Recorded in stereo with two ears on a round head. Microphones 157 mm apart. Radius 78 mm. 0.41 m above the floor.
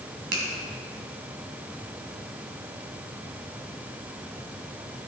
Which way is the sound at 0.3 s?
65° right (ahead or behind).